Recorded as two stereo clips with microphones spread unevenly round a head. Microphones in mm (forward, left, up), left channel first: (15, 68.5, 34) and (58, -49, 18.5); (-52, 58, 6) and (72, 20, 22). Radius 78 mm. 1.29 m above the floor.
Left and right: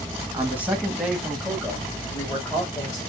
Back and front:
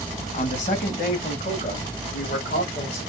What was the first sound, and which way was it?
A man speaking, 145° right.